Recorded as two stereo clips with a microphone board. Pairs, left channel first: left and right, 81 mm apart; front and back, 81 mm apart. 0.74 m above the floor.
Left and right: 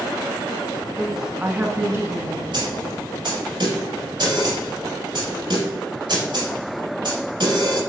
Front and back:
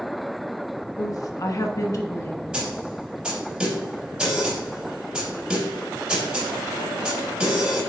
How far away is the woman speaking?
About 1.0 m.